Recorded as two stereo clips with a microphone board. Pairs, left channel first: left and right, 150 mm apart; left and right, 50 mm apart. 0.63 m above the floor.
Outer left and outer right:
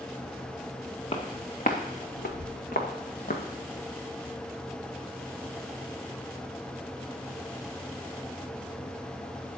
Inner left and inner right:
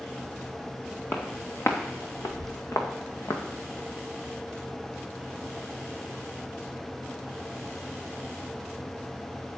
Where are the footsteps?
40° left (ahead or behind), 2.5 m; by 3.4 s 60° left (ahead or behind), 3 m.